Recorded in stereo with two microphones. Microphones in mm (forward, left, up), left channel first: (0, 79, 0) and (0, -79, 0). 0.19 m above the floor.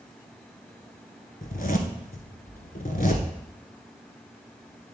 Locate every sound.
1.4 s a zipper: 65° left (ahead or behind), 1.1 m